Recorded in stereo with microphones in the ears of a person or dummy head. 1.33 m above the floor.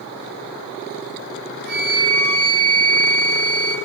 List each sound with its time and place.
1.6 s a flute: 65° right (ahead or behind), 2.5 m